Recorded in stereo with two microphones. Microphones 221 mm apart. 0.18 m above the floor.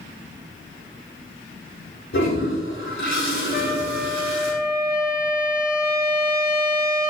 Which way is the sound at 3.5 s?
40° left (ahead or behind).